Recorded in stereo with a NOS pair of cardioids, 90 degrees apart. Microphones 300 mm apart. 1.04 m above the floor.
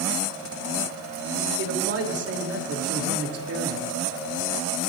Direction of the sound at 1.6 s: 50° right.